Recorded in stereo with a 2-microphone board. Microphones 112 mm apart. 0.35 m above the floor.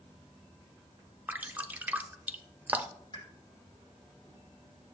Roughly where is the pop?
Left.